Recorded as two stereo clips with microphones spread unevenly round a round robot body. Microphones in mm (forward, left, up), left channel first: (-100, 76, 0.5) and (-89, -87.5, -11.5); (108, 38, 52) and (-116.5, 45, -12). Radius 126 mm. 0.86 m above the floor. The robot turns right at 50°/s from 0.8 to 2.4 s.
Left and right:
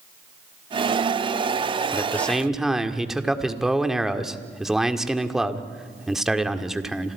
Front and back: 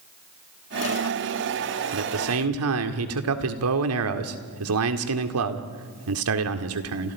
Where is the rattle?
No rattle in this recording.